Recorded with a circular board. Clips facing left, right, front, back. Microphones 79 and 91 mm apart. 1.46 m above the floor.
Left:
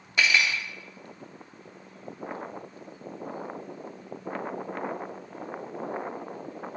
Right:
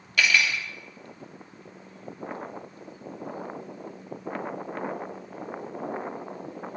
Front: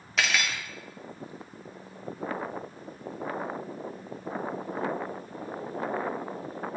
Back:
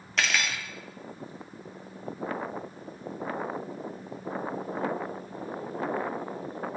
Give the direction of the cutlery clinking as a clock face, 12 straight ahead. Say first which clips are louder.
Right 1 dB, even; 9 o'clock.